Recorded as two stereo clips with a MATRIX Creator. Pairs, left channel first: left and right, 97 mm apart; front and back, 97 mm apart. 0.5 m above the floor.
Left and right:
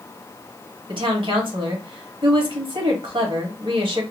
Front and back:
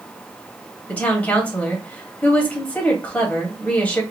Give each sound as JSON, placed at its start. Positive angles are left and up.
{"t": 0.9, "sound": "a woman speaking", "azimuth_deg": -75, "distance_m": 2.0}